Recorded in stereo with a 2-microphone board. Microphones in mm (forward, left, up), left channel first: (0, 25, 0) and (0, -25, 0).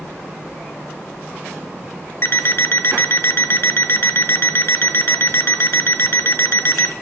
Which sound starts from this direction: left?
An alarm clock, at 2.2 s.